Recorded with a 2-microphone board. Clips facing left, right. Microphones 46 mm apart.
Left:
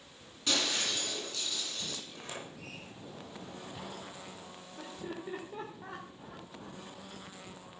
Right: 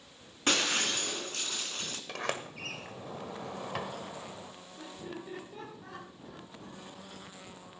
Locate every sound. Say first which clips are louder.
0.5 s breaking glass: right 3 dB; 45° right (ahead or behind), 2.5 m
2.1 s a sliding door: right 8 dB; 80° right, 1.3 m
4.8 s laughter: left 1 dB; 25° left (ahead or behind), 2 m